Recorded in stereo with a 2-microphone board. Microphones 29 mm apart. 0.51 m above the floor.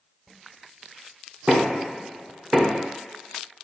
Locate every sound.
1.5 s knocking: 30° right (ahead or behind), 0.6 m